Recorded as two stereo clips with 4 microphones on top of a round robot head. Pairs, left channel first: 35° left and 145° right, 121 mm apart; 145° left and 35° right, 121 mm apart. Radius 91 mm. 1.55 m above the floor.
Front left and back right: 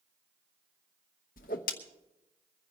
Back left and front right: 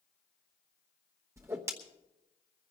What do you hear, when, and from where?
1.4 s a whoosh: 30° left, 1.0 m